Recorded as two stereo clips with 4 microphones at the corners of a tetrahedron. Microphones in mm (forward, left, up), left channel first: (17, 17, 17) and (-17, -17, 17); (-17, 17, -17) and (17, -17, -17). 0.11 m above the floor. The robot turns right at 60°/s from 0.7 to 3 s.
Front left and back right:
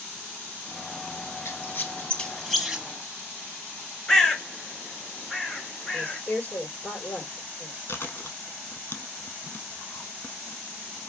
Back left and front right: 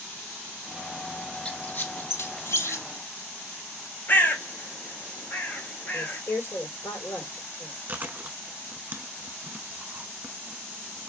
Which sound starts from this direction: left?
A woman speaking, at 5.9 s.